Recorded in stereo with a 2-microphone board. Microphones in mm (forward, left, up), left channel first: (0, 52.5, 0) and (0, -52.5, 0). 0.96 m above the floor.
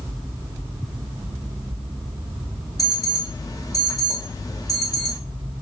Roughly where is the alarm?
Left.